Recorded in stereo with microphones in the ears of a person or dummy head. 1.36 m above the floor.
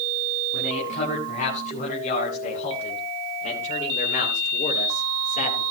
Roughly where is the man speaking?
Left.